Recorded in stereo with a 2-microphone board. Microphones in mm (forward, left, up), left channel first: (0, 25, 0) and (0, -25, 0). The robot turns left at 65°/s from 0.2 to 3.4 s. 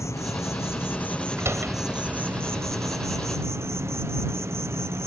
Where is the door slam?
70° right (ahead or behind); by 1.8 s 45° right (ahead or behind).